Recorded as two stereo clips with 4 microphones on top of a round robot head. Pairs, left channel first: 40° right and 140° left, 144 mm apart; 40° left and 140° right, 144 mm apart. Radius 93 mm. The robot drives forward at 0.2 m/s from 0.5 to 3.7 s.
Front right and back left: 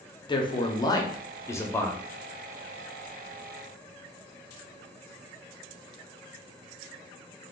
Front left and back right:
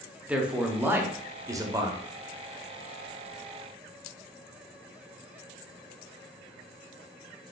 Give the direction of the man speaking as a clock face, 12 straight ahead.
2 o'clock.